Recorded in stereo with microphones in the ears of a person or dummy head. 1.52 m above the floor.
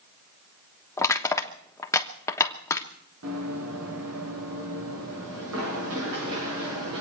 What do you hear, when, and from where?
1.0 s crushing: 20° left (ahead or behind), 1.2 m
3.2 s running footsteps: 75° right (ahead or behind), 6 m; by 7.0 s 80° right, 9.5 m